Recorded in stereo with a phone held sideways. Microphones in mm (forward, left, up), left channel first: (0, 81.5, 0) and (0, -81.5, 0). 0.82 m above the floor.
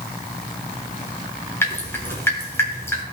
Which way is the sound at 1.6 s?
15° left (ahead or behind).